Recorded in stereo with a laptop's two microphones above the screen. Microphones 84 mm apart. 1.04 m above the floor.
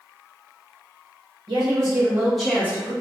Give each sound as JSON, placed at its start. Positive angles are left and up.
{"t": 1.5, "sound": "a woman speaking", "side_deg": -50, "distance_m": 1.2}